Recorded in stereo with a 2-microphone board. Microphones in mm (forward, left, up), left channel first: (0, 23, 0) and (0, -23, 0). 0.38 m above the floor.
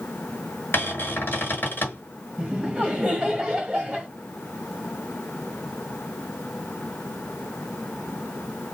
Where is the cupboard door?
45° left (ahead or behind), 1.6 m.